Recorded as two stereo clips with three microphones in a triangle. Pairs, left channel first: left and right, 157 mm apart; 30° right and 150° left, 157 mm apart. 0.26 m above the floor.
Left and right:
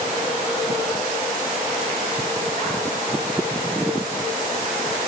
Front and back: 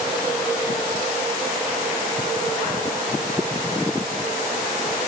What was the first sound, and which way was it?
Only background noise.